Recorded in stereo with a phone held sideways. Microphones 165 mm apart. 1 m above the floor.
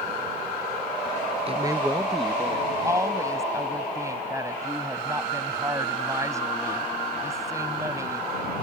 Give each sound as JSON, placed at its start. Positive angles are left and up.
{"t": 1.5, "sound": "a man speaking", "side_deg": -35}
{"t": 2.8, "sound": "a woman speaking", "side_deg": -20}